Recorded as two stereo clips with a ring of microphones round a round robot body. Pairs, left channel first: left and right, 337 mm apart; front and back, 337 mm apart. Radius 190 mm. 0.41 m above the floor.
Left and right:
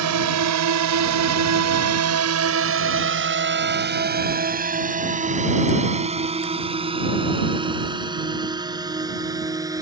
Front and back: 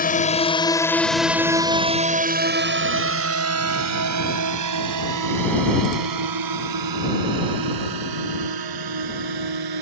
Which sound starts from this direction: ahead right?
A drone, at 0.0 s.